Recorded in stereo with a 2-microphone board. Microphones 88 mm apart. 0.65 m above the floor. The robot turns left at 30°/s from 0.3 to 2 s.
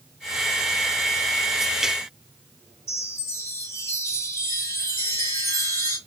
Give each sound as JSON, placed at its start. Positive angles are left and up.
{"t": 2.9, "sound": "a chime", "side_deg": 35, "distance_m": 2.0}